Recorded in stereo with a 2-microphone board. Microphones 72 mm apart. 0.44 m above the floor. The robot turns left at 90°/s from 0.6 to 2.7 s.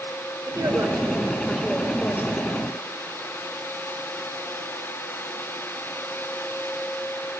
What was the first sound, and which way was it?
A woman speaking, 90° right.